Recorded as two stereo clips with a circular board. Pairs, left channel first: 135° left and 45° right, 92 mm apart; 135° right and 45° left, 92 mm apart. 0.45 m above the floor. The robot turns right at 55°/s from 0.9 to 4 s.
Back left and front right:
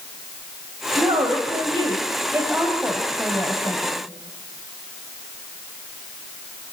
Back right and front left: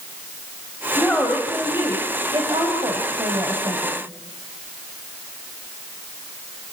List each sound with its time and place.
1.0 s a woman speaking: 60° right, 3 m; by 4.0 s 105° left, 3 m